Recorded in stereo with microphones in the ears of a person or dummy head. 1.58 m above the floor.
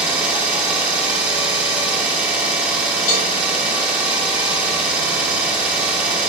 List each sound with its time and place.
0.0 s an engine running: 5° right (ahead or behind), 1.0 m
3.1 s a cowbell: 55° left (ahead or behind), 1.8 m